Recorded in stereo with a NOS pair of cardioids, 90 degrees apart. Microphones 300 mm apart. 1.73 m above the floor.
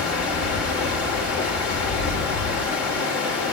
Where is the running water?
65° left, 1.5 m.